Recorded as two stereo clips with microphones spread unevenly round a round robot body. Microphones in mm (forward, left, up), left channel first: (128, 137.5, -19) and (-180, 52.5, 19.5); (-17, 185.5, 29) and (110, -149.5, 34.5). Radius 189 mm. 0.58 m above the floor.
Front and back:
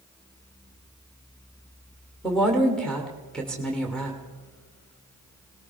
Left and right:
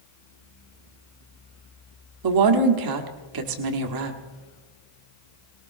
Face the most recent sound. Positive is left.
turn(degrees=-70)